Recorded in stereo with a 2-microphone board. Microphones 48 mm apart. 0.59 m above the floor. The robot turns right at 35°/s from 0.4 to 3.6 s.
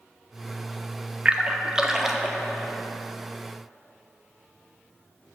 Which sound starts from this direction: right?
A splash, at 1.2 s.